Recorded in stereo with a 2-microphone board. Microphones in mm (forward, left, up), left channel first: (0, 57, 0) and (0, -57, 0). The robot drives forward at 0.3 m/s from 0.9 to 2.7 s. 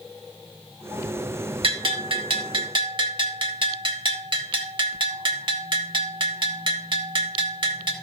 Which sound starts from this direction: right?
A bell, at 1.6 s.